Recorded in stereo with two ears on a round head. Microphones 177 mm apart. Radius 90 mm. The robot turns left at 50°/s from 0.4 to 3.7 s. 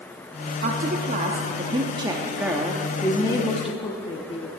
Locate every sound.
0.6 s a woman speaking: 75° right, 0.7 m; by 4.5 s 130° left, 0.7 m